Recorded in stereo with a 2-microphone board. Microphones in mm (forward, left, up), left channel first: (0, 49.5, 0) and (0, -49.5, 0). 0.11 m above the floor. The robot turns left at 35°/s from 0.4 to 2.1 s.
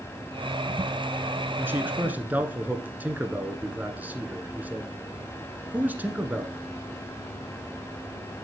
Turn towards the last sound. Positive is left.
turn(degrees=-15)  # may be behind; listen again after turning